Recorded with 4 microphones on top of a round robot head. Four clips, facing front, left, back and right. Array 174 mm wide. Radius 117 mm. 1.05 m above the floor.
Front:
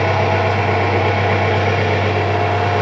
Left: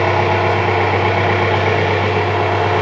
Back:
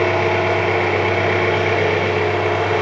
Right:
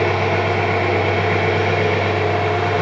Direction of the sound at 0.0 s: 80° left.